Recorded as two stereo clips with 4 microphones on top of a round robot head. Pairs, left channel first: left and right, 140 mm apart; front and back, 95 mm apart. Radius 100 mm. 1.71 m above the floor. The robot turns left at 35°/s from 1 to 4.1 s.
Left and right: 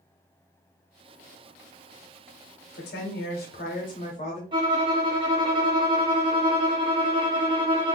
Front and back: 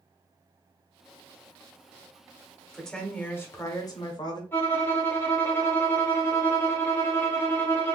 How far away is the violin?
About 0.5 m.